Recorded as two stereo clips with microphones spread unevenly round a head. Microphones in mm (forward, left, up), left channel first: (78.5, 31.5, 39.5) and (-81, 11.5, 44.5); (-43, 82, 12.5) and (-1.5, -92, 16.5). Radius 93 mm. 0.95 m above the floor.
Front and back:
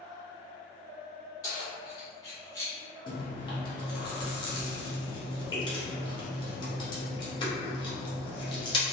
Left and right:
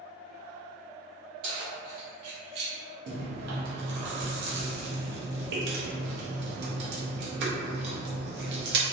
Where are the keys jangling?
60° right, 1.5 m; by 2.7 s 70° right, 0.6 m.